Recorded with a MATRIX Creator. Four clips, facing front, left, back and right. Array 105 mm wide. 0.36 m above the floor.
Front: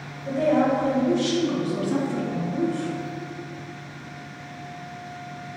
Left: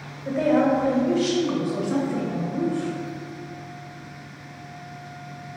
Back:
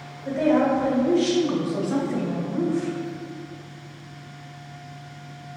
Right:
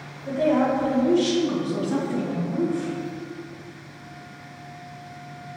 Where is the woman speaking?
95° left, 1.7 m; by 2.9 s 150° right, 1.1 m.